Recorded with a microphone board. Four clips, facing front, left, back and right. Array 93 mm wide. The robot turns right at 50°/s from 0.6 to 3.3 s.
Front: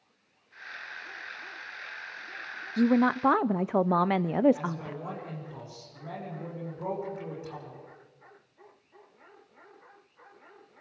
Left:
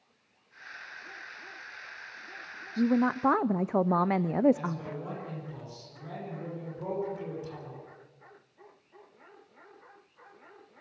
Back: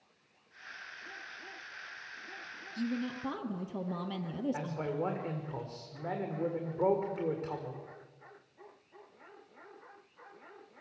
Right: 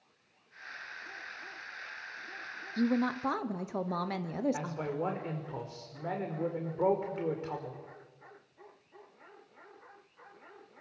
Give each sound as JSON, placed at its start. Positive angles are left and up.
{"t": 2.8, "sound": "a woman speaking", "azimuth_deg": 5, "distance_m": 0.6}
{"t": 4.5, "sound": "a man speaking", "azimuth_deg": -130, "distance_m": 6.0}